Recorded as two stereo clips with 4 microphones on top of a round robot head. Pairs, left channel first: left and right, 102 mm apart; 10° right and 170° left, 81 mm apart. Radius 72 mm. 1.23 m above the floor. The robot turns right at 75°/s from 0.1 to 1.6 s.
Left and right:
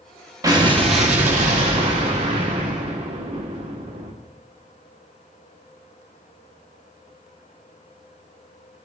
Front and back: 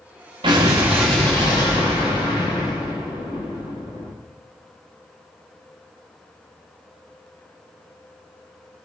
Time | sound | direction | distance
0.4 | an explosion | 150° right | 1.7 m